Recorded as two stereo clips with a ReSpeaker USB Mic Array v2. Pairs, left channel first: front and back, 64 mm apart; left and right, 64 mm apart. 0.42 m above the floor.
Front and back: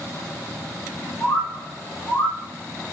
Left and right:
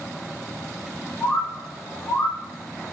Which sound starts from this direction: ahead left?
A bird, at 1.2 s.